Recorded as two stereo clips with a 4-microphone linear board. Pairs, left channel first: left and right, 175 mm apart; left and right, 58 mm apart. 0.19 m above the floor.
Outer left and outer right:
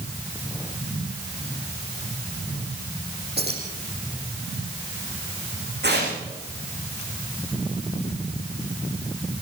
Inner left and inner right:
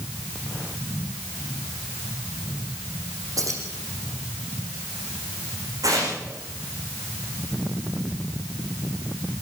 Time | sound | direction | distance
3.4 | keys jangling | 70° right (ahead or behind) | 7 m
5.8 | tearing paper | 75° right (ahead or behind) | 10 m